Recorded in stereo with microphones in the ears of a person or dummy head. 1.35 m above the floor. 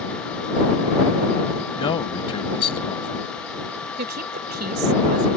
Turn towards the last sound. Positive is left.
turn(degrees=-55)  # may be behind; listen again after turning